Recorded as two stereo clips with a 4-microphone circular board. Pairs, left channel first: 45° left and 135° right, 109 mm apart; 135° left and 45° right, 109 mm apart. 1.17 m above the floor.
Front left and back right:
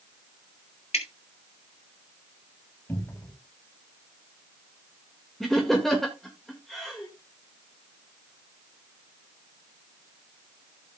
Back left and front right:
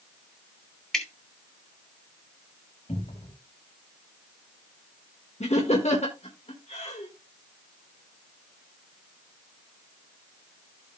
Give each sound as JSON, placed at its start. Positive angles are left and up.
{"t": 0.9, "sound": "dripping", "azimuth_deg": 50, "distance_m": 2.5}
{"t": 2.9, "sound": "a cupboard door", "azimuth_deg": 115, "distance_m": 4.5}
{"t": 5.4, "sound": "laughter", "azimuth_deg": 135, "distance_m": 1.8}